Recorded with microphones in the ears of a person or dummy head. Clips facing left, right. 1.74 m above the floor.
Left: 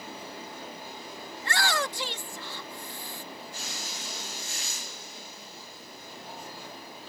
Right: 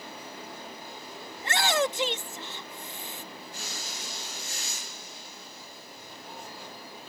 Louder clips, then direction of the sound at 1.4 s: Right 4 dB; 20° right (ahead or behind).